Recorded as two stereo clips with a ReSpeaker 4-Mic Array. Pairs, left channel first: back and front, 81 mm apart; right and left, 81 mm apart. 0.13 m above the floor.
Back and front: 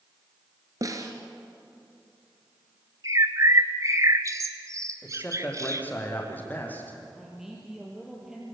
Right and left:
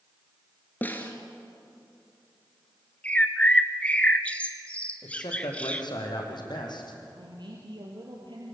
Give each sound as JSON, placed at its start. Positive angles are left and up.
{"t": 0.8, "sound": "a snare drum", "azimuth_deg": -30, "distance_m": 2.5}
{"t": 3.0, "sound": "a bird", "azimuth_deg": -25, "distance_m": 1.5}
{"t": 5.0, "sound": "a man speaking", "azimuth_deg": -110, "distance_m": 5.5}
{"t": 7.1, "sound": "a man speaking", "azimuth_deg": 85, "distance_m": 4.0}